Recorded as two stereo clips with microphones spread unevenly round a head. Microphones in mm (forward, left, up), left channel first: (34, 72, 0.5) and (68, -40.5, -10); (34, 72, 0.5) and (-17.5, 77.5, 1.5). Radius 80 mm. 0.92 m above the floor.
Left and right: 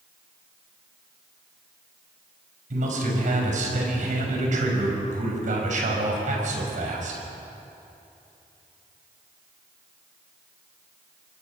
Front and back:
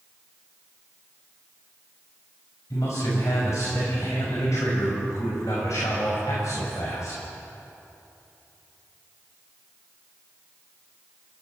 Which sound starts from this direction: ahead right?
A man speaking, at 2.7 s.